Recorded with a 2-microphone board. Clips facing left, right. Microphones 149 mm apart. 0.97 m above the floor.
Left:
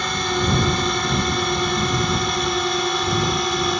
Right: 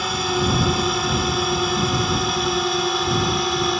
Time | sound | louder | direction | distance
0.0 | a drone | right 1 dB | 5° right (ahead or behind) | ?